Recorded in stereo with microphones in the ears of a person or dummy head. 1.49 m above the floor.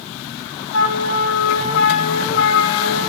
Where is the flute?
75° left (ahead or behind), 1.8 m.